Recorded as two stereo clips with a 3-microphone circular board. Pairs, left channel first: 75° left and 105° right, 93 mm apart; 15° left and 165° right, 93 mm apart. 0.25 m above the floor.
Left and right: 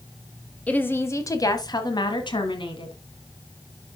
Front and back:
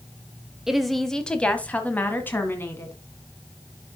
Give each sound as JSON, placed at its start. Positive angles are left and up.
{"t": 0.7, "sound": "a woman speaking", "azimuth_deg": 120, "distance_m": 0.9}